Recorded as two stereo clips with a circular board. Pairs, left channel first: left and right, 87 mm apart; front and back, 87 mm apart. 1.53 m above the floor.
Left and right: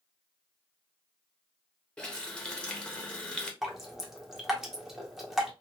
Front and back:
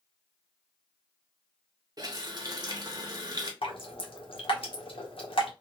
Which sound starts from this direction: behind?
A running tap, at 2.0 s.